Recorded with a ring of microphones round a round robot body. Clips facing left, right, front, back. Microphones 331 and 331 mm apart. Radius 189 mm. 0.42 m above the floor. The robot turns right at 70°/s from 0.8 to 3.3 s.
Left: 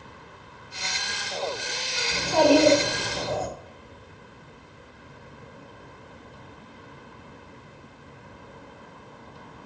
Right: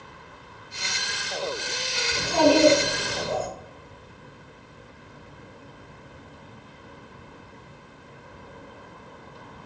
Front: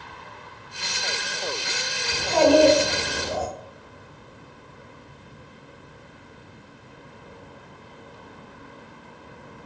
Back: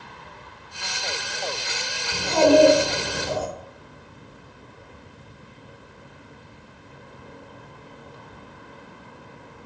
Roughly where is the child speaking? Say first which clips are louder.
Left 1 dB, back 1 dB; left.